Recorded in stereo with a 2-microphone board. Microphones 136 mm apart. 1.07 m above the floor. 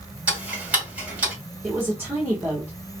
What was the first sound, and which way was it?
Ticking, 10° right (ahead or behind).